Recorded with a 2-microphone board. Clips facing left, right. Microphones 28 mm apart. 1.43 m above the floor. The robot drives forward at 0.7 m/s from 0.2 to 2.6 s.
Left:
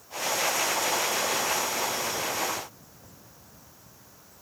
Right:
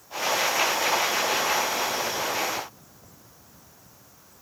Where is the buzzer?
No buzzer in this recording.